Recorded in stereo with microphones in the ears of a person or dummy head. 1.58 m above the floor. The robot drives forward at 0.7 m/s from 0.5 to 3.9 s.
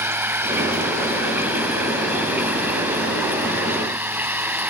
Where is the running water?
15° right (ahead or behind).